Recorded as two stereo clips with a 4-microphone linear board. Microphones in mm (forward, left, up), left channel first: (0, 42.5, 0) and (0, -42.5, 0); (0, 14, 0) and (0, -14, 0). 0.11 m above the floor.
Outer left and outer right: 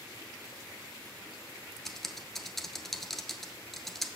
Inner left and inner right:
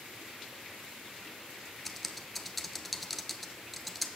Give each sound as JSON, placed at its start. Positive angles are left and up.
{"t": 1.9, "sound": "typing on a keyboard", "side_deg": 5, "distance_m": 0.7}